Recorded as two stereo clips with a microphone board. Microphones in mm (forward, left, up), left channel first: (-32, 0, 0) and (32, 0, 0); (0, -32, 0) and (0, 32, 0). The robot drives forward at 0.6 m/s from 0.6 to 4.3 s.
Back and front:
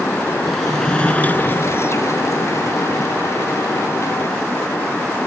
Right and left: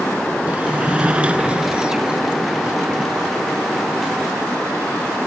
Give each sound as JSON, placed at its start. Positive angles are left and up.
{"t": 0.5, "sound": "a sliding door", "azimuth_deg": 100}